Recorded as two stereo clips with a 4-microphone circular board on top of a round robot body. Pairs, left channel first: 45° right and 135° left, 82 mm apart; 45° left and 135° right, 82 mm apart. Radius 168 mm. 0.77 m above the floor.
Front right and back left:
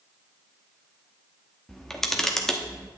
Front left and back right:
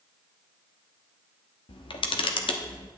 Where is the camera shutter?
40° left, 1.0 m.